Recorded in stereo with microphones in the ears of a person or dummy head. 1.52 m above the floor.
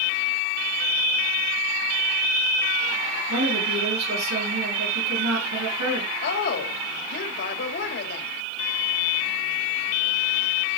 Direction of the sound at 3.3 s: 80° right.